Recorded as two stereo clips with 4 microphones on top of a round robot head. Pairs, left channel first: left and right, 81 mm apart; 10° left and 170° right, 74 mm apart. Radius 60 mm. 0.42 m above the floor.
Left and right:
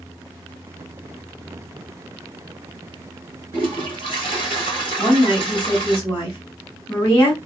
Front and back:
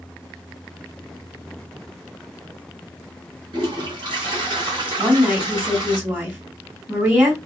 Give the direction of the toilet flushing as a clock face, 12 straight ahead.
5 o'clock.